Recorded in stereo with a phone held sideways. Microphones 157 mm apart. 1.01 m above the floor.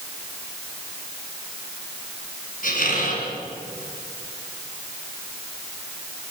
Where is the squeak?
60° left (ahead or behind), 7.5 m.